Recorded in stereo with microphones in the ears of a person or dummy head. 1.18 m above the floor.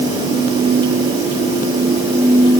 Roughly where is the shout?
I don't hear a shout.